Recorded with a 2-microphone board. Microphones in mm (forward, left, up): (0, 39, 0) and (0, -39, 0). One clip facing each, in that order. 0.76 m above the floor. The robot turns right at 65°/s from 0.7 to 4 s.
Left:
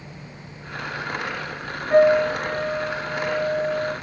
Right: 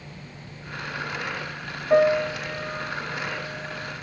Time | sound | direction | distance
1.9 | a piano | 20° right | 1.0 m